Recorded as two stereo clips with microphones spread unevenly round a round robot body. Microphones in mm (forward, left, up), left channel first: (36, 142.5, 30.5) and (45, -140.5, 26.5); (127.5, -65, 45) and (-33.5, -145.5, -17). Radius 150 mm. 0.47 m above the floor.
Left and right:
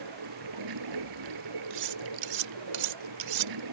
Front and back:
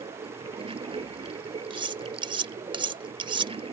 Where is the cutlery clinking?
100° right.